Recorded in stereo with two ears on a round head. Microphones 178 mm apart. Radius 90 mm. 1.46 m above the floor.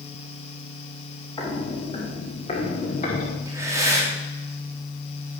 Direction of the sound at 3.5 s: 15° right (ahead or behind).